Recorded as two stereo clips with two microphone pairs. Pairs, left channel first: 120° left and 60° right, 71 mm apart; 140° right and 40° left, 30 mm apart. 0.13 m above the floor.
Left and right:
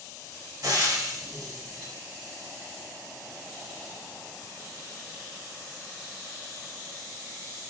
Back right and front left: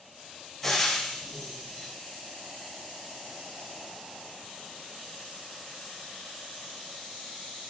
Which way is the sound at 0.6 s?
45° right.